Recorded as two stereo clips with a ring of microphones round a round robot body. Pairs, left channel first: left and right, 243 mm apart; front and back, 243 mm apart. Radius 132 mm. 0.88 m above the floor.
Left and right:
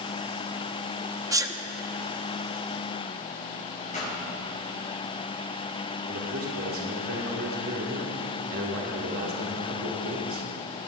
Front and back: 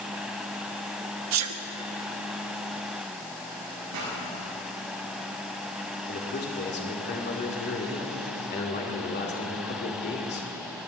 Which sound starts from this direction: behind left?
A pop, at 3.9 s.